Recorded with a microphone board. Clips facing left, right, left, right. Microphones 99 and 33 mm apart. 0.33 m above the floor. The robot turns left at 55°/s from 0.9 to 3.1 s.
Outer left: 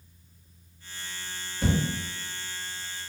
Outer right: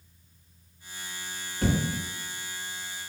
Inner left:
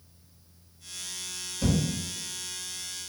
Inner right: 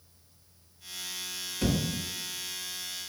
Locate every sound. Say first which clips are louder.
1.6 s a thud: even, inner left 2 dB; 55° right (ahead or behind), 1.8 m; by 1.8 s 45° right (ahead or behind), 1.8 m